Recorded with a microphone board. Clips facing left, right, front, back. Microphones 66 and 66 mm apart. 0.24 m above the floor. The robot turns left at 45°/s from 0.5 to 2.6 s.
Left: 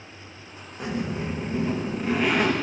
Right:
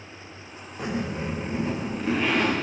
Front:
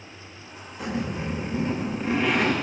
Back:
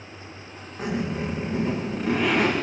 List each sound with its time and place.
0.8 s a zipper: 125° right, 8 m; by 2.5 s 155° left, 8 m